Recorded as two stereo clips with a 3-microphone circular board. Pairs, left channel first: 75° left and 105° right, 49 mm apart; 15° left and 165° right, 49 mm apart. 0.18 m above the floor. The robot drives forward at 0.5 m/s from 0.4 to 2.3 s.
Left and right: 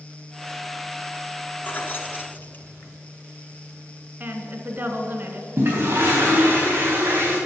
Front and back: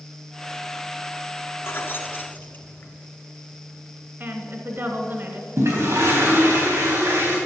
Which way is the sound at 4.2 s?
145° right.